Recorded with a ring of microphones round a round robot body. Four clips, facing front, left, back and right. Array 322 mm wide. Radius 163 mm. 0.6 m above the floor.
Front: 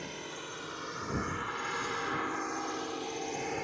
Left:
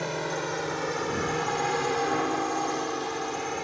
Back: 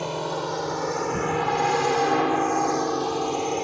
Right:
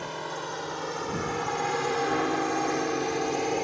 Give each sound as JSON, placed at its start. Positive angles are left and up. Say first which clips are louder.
{"t": 0.0, "sound": "a drone", "louder": "left 4 dB, back 15 dB", "azimuth_deg": 150}